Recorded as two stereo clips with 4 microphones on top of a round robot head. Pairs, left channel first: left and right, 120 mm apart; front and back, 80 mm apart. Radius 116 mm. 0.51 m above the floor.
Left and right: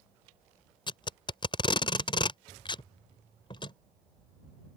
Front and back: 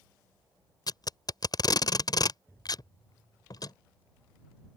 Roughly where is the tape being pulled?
Ahead left.